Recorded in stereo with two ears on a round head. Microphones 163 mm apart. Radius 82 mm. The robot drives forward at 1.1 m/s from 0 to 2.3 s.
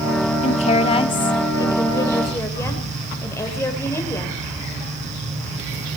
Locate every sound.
0.4 s a woman speaking: 35° left (ahead or behind), 1.0 m; by 4.4 s 15° left (ahead or behind), 2.5 m